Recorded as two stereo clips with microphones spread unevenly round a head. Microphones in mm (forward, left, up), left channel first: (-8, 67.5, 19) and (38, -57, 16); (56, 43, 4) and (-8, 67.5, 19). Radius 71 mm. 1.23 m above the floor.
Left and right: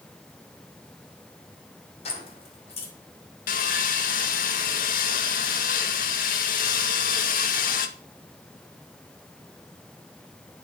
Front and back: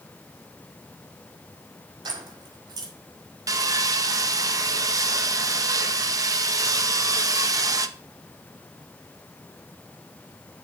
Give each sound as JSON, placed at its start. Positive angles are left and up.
{"t": 2.0, "sound": "keys jangling", "azimuth_deg": 155, "distance_m": 4.5}
{"t": 3.5, "sound": "sawing", "azimuth_deg": 125, "distance_m": 1.7}